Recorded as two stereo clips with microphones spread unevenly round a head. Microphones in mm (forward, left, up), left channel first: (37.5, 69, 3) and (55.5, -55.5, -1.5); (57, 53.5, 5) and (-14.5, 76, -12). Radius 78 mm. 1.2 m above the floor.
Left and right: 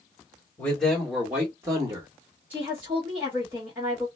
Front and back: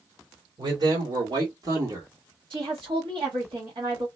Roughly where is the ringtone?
No ringtone in this recording.